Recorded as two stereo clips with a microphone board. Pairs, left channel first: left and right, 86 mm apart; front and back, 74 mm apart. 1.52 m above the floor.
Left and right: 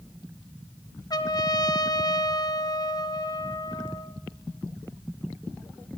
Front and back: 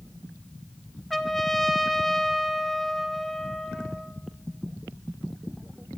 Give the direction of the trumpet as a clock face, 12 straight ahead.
9 o'clock.